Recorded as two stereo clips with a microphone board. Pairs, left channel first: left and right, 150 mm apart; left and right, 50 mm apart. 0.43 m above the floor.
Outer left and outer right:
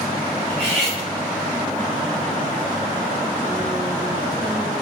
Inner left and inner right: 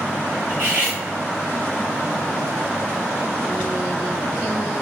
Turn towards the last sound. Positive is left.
turn(degrees=-40)  # may be behind; listen again after turning